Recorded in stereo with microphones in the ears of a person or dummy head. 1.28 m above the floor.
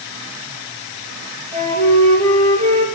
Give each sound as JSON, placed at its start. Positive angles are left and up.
{"t": 1.5, "sound": "a flute", "side_deg": -35, "distance_m": 4.0}